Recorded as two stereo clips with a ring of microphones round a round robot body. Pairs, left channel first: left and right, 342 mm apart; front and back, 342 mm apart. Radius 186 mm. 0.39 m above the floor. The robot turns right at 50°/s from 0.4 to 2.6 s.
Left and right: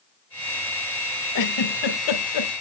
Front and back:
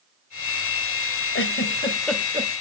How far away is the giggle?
About 1.4 m.